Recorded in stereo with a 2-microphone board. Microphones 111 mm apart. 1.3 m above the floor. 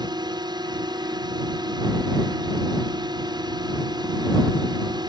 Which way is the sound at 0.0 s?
40° right (ahead or behind).